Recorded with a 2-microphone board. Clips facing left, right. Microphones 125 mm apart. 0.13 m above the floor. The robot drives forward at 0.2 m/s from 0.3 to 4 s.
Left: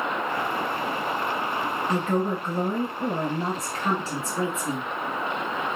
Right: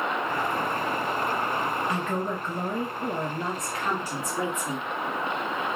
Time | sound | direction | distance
1.9 | a woman speaking | 30° left (ahead or behind) | 1.2 m